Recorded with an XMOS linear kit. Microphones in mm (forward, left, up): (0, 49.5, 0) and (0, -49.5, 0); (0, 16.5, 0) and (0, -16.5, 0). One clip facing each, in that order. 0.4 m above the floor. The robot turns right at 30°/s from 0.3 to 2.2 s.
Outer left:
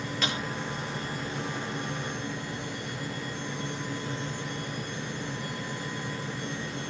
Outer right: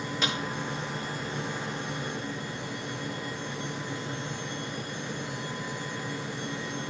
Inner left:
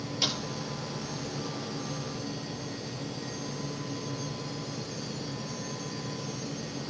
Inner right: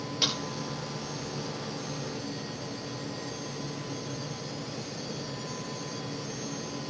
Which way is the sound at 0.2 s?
20° right (ahead or behind).